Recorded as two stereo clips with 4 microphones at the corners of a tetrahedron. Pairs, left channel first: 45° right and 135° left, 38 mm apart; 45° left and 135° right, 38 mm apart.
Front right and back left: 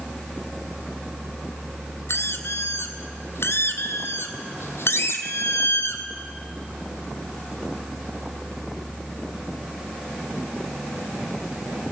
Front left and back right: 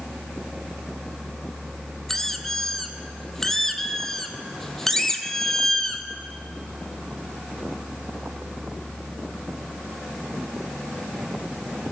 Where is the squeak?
35° right, 1.3 m.